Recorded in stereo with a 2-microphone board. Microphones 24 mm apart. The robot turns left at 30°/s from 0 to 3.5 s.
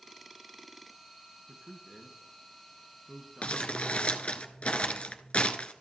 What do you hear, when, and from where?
1.5 s a man speaking: 50° right (ahead or behind), 2.5 m; by 4.4 s 5° right (ahead or behind), 2.5 m
3.4 s crumpling: 55° left (ahead or behind), 1.2 m; by 5.7 s 60° left (ahead or behind), 1.2 m